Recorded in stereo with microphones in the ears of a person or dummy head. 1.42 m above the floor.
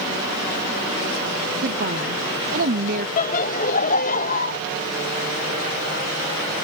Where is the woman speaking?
50° right (ahead or behind).